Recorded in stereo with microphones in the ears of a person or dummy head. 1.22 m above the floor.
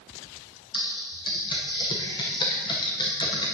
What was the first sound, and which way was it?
Typing on a keyboard, 25° left (ahead or behind).